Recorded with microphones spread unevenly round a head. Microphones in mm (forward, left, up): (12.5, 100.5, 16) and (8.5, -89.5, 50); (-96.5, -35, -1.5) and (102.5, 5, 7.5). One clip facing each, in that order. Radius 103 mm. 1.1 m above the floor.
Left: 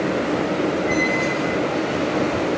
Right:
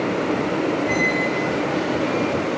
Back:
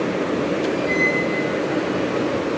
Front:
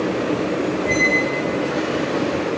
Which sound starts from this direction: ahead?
A squeak, at 0.8 s.